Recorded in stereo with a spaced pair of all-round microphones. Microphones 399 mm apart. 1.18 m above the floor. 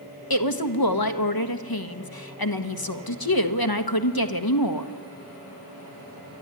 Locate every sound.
0.3 s a woman speaking: 60° left (ahead or behind), 1.4 m